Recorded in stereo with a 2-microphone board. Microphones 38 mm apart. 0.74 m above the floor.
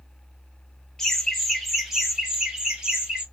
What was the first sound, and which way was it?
Laughter, 10° left (ahead or behind).